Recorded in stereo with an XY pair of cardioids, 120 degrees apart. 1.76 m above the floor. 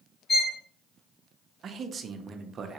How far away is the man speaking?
About 0.5 m.